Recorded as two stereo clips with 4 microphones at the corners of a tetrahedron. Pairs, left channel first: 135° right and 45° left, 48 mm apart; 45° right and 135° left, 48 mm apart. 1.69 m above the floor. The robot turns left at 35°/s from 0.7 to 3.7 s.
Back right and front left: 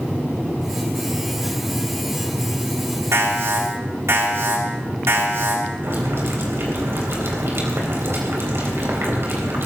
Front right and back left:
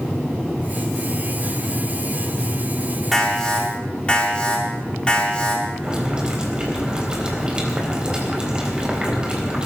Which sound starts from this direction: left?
Boiling, at 5.8 s.